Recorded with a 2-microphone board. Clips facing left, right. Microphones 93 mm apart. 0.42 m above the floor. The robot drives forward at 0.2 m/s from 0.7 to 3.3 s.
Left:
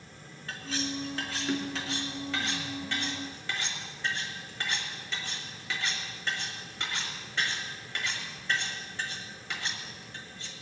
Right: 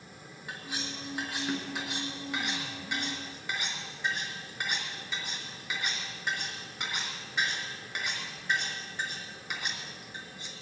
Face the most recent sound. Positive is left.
turn(degrees=-15)  # may be behind; listen again after turning